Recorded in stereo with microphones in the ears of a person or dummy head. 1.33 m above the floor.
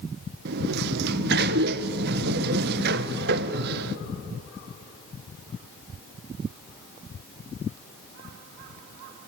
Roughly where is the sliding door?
Right.